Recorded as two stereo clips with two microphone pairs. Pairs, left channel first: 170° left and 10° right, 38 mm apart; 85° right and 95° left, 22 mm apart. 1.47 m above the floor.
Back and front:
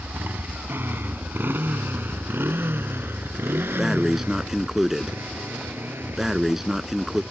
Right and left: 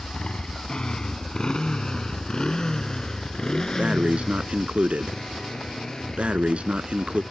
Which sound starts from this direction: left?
Breathing, at 3.8 s.